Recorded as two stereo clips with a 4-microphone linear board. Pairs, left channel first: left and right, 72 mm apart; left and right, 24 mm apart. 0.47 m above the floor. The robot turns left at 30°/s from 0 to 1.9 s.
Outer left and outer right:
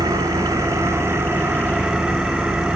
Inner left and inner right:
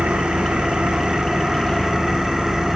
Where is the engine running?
110° right, 2 m; by 2.8 s 165° right, 2 m.